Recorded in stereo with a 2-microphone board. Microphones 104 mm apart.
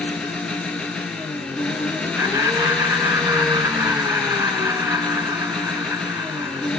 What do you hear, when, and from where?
0.0 s an engine running: 10° left (ahead or behind), 1.3 m
2.2 s laughter: 25° right (ahead or behind), 1.0 m